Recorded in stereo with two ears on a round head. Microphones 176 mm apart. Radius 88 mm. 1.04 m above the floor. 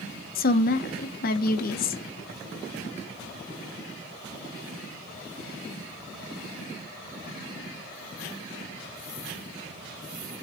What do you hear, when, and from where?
0.3 s a woman speaking: 50° left (ahead or behind), 0.9 m